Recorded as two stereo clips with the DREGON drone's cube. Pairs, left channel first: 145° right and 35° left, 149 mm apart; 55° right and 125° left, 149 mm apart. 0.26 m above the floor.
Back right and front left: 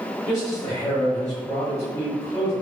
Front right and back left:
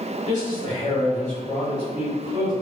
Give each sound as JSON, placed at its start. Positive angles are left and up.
{"t": 0.3, "sound": "a man speaking", "azimuth_deg": -50, "distance_m": 1.6}